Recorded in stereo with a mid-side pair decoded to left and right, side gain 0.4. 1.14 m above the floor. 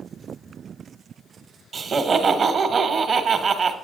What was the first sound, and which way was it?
Laughter, 50° right.